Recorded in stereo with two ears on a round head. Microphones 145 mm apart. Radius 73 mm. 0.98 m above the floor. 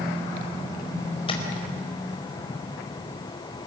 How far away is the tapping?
About 4.5 m.